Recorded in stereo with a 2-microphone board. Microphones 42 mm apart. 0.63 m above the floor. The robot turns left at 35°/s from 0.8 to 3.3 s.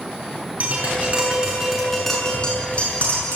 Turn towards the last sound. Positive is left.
turn(degrees=130)